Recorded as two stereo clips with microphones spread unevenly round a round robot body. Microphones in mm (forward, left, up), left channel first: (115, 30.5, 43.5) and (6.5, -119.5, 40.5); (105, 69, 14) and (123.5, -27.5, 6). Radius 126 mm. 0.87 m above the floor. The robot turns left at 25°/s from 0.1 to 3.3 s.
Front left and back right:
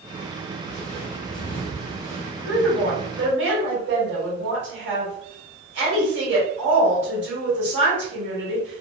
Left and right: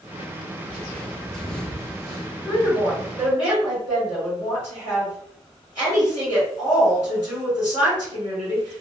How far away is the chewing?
I don't hear chewing.